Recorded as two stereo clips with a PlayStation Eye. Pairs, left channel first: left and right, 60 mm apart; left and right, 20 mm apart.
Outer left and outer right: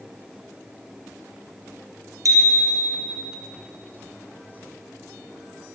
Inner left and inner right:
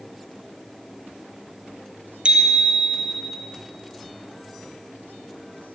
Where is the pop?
No pop in this recording.